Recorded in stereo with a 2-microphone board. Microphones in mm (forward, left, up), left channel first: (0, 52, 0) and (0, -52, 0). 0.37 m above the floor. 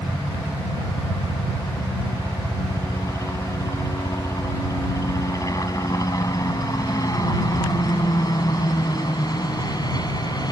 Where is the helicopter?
25° left (ahead or behind); by 10.5 s 40° left (ahead or behind).